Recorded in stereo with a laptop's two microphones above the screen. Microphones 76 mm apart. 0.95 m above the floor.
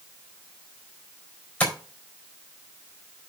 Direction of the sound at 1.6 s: 20° left (ahead or behind).